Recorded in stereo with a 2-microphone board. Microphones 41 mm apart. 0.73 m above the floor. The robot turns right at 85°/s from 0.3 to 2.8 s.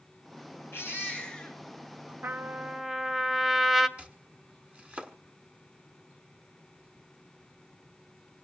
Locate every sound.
0.7 s a baby crying: 105° left, 5.5 m; by 2.1 s 135° right, 5.5 m
2.2 s a trumpet: 55° right, 0.8 m; by 3.9 s 5° right, 0.8 m
4.0 s chopping: 30° right (ahead or behind), 1.3 m